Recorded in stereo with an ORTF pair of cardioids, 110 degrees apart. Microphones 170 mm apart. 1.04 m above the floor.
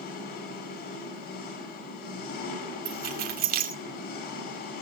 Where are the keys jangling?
65° right, 4.5 m.